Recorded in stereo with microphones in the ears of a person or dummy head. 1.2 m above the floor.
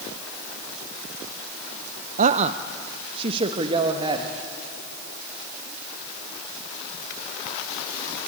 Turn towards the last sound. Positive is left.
turn(degrees=-30)  # may be behind; listen again after turning